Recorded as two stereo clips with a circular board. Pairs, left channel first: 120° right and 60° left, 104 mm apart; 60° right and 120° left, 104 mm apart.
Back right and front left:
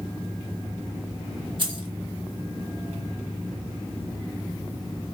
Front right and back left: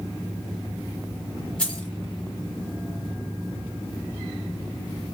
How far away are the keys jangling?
About 0.9 m.